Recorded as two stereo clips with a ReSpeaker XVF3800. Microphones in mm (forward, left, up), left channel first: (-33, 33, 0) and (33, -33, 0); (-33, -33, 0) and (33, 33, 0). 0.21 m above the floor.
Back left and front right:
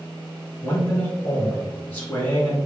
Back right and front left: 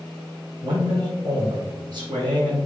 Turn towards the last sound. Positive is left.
turn(degrees=70)